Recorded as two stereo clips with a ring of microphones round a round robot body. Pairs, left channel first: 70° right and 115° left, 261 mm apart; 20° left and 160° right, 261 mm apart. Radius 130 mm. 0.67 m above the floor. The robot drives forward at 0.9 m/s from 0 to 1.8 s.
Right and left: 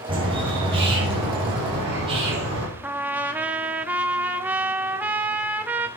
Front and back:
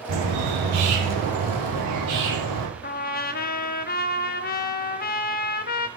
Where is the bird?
175° right, 3 m; by 2.7 s straight behind, 4.5 m.